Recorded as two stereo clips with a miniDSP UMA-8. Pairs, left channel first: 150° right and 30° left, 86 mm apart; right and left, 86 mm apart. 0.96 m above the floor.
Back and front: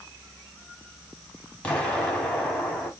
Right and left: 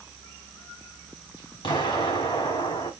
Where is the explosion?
80° right, 3 m.